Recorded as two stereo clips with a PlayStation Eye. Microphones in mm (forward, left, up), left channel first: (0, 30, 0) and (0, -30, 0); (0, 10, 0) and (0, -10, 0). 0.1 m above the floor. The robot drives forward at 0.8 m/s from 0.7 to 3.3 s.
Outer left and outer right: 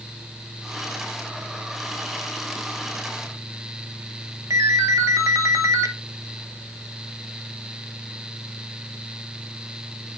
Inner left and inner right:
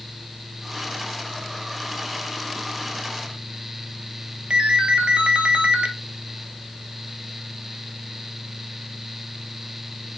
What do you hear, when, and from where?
4.5 s a ringtone: 55° right (ahead or behind), 0.8 m